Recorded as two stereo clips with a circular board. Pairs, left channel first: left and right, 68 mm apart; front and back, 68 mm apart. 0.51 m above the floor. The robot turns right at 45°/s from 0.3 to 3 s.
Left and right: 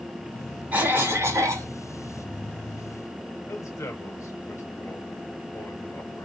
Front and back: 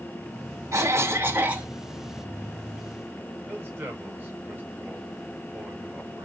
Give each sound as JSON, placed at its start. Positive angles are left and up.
{"t": 0.7, "sound": "a cough", "azimuth_deg": -150, "distance_m": 1.2}
{"t": 3.5, "sound": "a man speaking", "azimuth_deg": 120, "distance_m": 3.0}